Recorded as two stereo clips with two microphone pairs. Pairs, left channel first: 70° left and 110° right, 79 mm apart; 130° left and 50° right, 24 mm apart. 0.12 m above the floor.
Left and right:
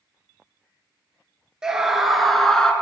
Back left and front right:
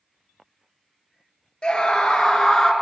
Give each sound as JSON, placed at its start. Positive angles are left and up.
{"t": 1.6, "sound": "a scream", "azimuth_deg": 170, "distance_m": 1.6}